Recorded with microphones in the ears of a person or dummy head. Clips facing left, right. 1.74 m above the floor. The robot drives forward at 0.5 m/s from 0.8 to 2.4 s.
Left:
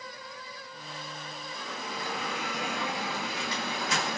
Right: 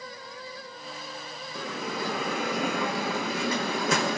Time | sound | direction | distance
1.6 | a bell | 65° right (ahead or behind) | 1.4 m